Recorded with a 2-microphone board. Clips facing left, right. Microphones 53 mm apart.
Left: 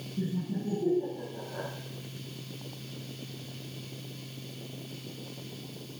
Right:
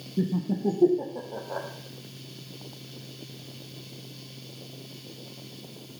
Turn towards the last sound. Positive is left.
turn(degrees=-75)  # may be behind; listen again after turning